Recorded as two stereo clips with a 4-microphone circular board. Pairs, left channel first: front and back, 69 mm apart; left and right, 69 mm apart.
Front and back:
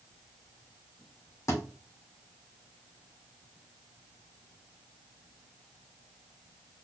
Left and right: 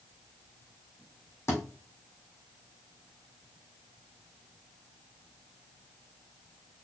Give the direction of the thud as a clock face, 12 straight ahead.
11 o'clock.